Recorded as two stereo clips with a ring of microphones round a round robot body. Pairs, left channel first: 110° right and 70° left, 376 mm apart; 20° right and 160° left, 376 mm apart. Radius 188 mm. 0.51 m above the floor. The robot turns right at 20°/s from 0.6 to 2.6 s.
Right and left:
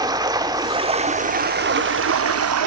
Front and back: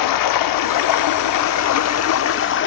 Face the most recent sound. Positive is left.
turn(degrees=30)